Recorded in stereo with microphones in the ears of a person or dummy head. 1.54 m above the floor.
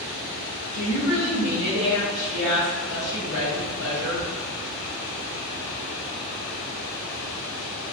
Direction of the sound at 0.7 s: 75° left (ahead or behind).